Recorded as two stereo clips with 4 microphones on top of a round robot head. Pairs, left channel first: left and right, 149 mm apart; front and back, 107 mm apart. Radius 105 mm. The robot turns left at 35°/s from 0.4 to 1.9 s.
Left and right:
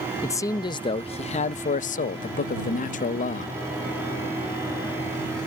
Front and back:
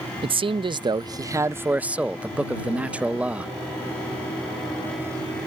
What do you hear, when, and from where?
0.2 s a man speaking: 155° left; by 3.5 s 105° left